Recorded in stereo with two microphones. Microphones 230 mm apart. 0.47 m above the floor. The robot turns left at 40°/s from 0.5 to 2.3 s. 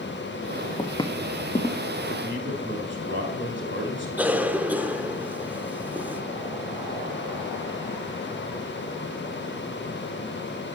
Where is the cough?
5° right (ahead or behind), 0.9 m.